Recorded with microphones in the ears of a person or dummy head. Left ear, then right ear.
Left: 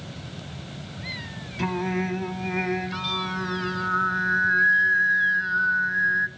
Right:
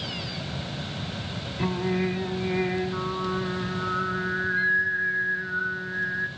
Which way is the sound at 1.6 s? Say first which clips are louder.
Left 1 dB; 35° left (ahead or behind).